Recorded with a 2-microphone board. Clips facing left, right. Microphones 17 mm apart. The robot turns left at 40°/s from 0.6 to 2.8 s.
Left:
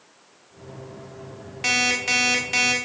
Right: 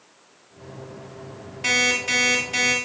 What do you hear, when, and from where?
1.6 s an alarm clock: 150° left, 1.9 m; by 2.7 s 105° left, 1.9 m